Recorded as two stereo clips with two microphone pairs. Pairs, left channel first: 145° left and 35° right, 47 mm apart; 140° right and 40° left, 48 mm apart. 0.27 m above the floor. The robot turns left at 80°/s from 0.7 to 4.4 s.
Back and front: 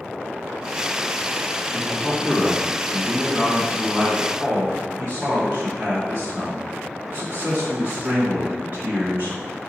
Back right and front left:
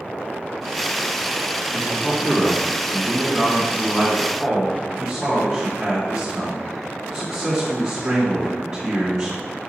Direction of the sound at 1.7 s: 170° right.